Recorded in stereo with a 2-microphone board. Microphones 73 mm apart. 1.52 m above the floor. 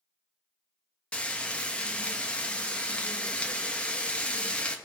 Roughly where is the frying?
Centre.